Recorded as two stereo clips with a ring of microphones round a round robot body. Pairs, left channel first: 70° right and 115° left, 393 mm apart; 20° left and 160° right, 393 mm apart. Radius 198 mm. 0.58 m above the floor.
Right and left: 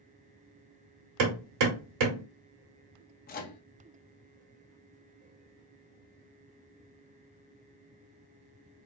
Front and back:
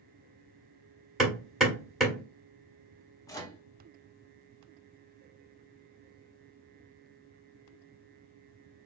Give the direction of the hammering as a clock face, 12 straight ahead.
8 o'clock.